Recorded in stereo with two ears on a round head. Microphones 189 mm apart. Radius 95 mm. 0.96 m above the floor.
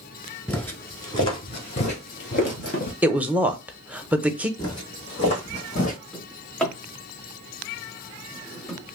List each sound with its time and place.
0.5 s footsteps: 5° left (ahead or behind), 0.9 m; by 2.9 s 40° left (ahead or behind), 1.4 m
3.0 s a woman speaking: 5° right (ahead or behind), 0.5 m
4.6 s footsteps: 20° left (ahead or behind), 1.7 m; by 6.0 s 40° left (ahead or behind), 1.6 m
6.1 s a drawer: 5° left (ahead or behind), 1.1 m